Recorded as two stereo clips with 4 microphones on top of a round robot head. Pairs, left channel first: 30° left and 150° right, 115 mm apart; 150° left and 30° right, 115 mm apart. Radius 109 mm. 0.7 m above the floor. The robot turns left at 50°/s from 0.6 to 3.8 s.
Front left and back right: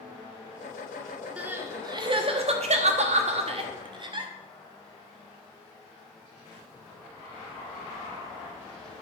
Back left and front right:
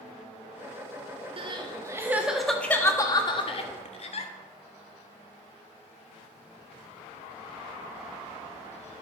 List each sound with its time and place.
1.4 s crying: 70° right, 1.1 m; by 4.3 s 170° left, 1.1 m